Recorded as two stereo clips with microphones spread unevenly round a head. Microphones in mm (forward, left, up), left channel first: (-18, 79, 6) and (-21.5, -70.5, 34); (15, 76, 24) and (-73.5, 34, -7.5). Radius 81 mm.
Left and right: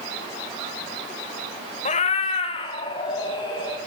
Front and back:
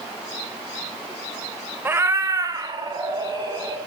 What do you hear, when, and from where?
1.9 s a cat meowing: 120° left, 1.0 m; by 3.8 s 155° left, 3.5 m